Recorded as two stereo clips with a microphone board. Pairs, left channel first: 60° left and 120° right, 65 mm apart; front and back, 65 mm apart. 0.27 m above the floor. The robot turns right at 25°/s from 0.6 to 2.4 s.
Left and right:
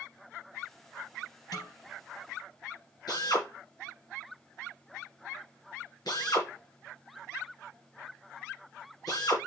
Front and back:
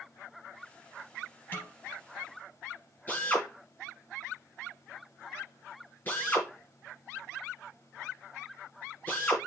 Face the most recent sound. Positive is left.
turn(degrees=60)